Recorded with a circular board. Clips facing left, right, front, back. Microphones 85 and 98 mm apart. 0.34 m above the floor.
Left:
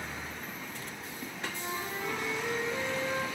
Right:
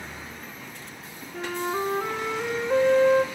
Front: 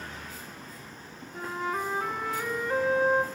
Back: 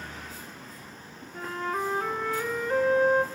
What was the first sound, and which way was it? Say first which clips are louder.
A flute: right 11 dB, back 1 dB; 85° right.